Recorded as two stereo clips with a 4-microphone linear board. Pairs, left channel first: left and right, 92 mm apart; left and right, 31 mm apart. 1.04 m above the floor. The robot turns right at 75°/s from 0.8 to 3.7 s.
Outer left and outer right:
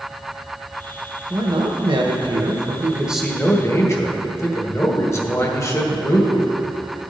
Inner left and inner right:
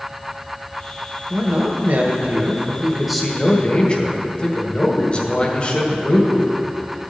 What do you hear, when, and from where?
1.3 s a man speaking: 145° right, 1.2 m; by 6.5 s 35° left, 1.2 m